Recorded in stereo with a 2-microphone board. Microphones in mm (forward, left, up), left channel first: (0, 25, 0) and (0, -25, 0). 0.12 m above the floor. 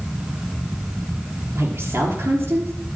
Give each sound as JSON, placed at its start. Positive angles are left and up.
{"t": 1.6, "sound": "a woman speaking", "side_deg": -50, "distance_m": 3.0}